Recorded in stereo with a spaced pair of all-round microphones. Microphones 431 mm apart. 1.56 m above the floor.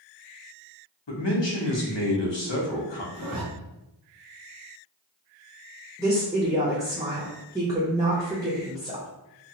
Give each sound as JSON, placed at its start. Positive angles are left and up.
{"t": 1.1, "sound": "a man speaking", "side_deg": 75, "distance_m": 0.9}
{"t": 3.1, "sound": "a zipper", "side_deg": -55, "distance_m": 0.7}
{"t": 6.0, "sound": "a woman speaking", "side_deg": -10, "distance_m": 0.6}